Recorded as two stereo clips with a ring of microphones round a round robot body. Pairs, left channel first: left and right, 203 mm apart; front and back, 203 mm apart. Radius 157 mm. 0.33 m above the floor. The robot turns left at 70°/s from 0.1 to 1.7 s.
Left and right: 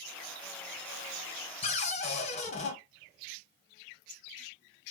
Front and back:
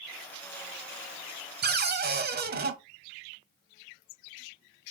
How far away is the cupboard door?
About 0.7 m.